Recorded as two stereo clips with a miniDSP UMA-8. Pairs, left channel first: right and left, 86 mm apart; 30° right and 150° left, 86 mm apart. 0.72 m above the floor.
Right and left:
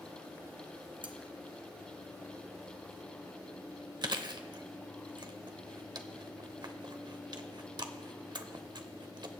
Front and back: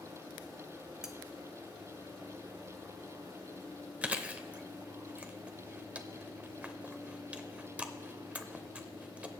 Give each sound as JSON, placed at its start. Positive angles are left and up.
{"t": 1.0, "sound": "cutlery clinking", "azimuth_deg": 65, "distance_m": 0.7}
{"t": 4.0, "sound": "chewing", "azimuth_deg": 80, "distance_m": 0.6}